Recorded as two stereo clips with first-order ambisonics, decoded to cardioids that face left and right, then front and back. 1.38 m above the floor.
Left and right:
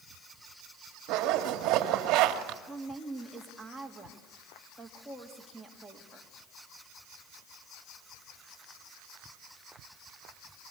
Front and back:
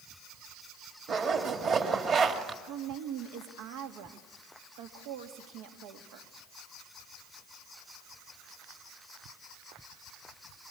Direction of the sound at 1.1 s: 120° right.